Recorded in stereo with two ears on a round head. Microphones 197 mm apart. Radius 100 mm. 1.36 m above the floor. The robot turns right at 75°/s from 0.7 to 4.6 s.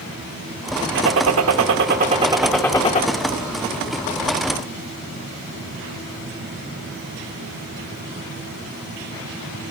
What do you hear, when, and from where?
0.9 s a gunshot: 120° right, 1.3 m; by 3.0 s 40° left, 1.3 m